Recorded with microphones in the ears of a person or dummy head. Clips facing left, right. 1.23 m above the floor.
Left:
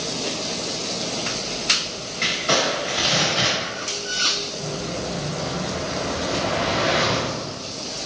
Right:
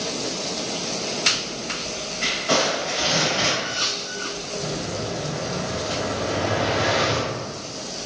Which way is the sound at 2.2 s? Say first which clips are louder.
Even; 35° left (ahead or behind).